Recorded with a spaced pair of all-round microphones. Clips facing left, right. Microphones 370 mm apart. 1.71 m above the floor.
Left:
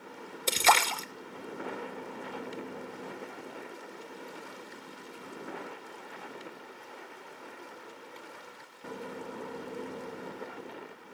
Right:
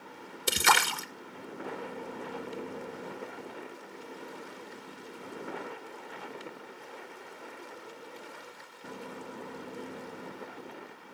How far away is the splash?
About 0.8 m.